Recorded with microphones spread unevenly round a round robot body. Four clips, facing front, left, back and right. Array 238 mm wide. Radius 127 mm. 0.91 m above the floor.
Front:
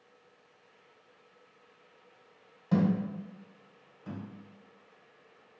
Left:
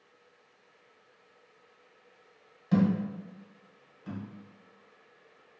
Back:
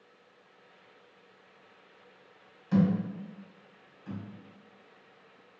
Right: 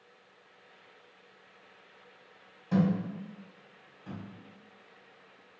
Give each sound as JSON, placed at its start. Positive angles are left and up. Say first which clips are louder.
{"t": 2.7, "sound": "a thud", "louder": "left 2 dB, back 1 dB", "azimuth_deg": -15, "distance_m": 1.4}